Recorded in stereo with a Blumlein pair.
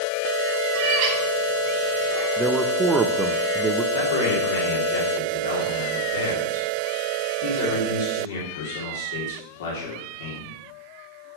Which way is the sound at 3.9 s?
60° left.